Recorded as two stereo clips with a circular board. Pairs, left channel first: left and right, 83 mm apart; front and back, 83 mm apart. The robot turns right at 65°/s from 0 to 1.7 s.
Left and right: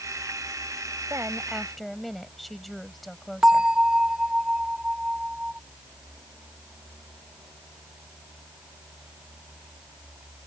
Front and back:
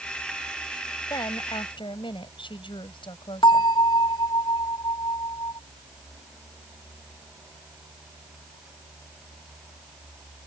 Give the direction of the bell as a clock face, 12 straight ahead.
12 o'clock.